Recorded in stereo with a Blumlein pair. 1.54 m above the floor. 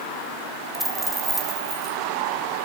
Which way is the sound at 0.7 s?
5° right.